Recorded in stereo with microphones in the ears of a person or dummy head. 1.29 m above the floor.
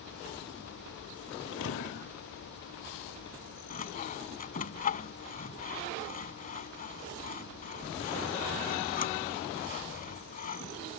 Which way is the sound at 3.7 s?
40° left (ahead or behind).